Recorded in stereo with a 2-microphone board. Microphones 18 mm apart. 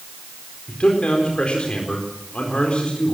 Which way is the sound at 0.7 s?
80° left.